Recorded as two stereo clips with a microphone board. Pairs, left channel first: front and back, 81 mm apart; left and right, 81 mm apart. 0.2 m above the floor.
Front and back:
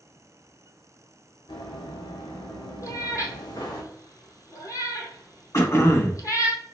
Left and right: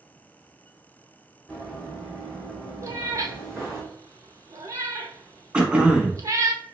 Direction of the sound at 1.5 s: 5° left.